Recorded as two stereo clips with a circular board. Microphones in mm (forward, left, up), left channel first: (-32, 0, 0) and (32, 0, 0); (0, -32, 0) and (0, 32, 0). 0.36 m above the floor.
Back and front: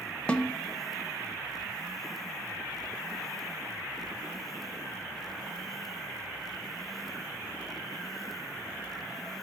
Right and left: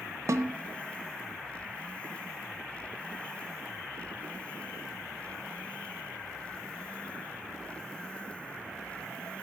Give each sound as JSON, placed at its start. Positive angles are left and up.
{"t": 0.3, "sound": "a snare drum", "azimuth_deg": 110, "distance_m": 0.9}